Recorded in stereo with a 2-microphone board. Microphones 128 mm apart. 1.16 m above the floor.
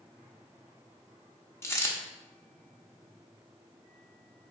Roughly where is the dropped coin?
Left.